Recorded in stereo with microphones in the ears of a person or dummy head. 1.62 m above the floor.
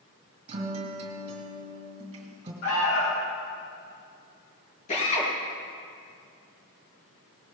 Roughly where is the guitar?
Right.